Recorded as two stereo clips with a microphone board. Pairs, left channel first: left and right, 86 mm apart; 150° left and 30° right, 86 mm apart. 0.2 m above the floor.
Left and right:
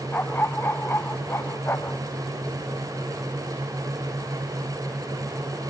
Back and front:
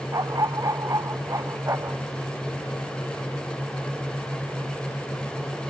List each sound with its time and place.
0.1 s a dog barking: 20° left; by 2.0 s 30° left